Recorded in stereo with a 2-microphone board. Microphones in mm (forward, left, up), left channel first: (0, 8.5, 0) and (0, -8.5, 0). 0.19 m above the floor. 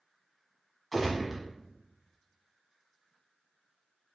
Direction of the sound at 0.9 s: Centre (ahead or behind).